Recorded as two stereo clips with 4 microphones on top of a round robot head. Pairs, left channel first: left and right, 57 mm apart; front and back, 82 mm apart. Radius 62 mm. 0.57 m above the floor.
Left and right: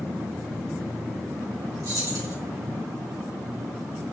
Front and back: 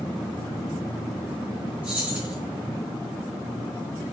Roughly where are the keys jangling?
Right.